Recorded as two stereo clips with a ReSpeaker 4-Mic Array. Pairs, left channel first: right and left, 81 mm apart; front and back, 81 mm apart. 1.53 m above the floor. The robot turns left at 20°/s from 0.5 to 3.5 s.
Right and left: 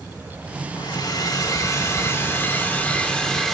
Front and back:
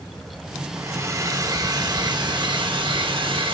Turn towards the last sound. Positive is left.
turn(degrees=-175)